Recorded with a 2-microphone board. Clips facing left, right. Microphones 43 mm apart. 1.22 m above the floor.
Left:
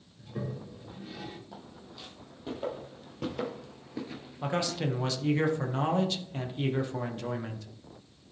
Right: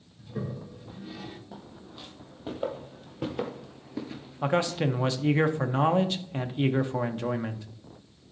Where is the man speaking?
25° right (ahead or behind), 0.7 m.